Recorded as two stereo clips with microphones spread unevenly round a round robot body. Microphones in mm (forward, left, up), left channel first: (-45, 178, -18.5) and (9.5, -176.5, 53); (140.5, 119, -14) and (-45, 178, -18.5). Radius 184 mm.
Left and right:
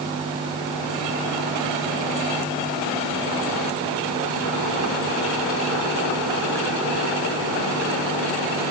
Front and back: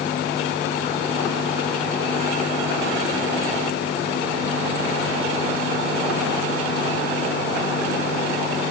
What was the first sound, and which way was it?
Only background noise.